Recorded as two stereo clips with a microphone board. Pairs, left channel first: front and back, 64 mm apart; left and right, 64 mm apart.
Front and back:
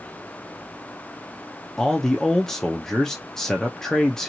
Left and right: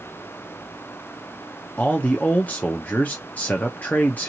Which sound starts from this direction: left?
A man speaking, at 1.8 s.